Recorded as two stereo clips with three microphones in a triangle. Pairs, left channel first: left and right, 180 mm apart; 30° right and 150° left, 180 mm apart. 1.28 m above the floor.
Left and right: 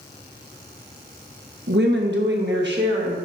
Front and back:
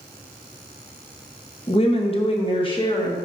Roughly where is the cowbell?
No cowbell in this recording.